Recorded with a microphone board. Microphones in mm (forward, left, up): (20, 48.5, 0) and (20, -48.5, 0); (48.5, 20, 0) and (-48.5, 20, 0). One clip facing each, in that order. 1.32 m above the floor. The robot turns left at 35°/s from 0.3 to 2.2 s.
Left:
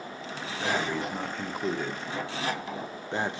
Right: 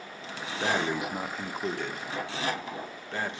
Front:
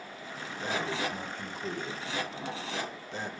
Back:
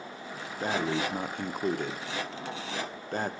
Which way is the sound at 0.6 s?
150° right.